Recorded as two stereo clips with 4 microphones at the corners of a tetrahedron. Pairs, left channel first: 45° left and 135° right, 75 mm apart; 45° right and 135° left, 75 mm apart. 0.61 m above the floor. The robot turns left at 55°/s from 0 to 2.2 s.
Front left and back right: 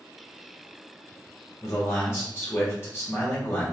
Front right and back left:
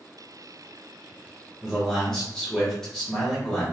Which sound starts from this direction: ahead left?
A man speaking, at 1.6 s.